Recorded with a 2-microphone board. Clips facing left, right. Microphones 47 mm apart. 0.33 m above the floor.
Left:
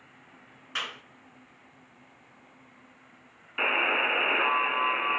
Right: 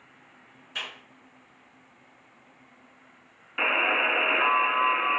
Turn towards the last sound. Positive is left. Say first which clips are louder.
# right 2 dB
turn(degrees=-10)  # may be behind; listen again after turning